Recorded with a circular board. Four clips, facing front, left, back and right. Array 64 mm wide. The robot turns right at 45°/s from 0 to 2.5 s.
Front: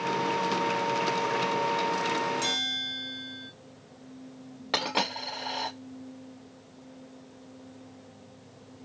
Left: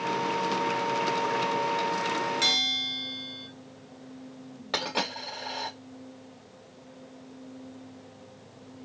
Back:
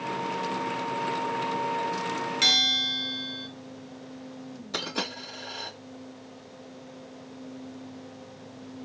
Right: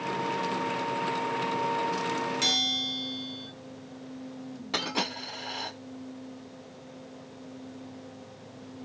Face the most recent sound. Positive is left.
turn(degrees=15)